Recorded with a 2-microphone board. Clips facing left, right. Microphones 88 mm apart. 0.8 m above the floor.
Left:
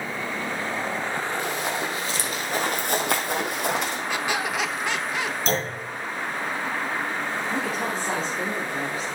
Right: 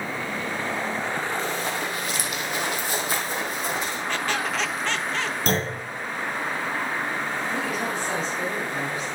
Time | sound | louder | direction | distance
1.4 | running footsteps | even | 10° left (ahead or behind) | 2.5 m
4.1 | a squeak | right 1 dB | 10° left (ahead or behind) | 0.6 m
5.5 | a clunk | right 3 dB | 55° right (ahead or behind) | 5 m
7.5 | a woman speaking | even | 30° left (ahead or behind) | 2.5 m